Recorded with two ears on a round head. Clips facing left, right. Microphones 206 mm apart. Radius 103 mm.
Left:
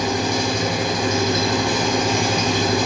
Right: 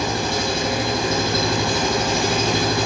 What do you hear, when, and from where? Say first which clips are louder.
0.0 s an engine running: left 2 dB; 15° left (ahead or behind), 4.5 m